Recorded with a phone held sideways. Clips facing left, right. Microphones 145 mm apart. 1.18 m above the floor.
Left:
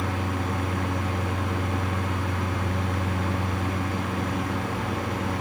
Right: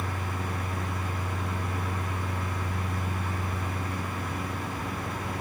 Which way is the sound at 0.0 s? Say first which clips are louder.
Left 6 dB; 70° left (ahead or behind).